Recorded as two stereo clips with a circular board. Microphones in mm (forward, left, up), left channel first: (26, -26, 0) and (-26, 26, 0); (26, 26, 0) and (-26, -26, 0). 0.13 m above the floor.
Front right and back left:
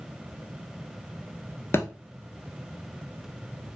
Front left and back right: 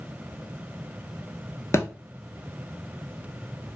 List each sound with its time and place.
1.7 s a thud: straight ahead, 0.6 m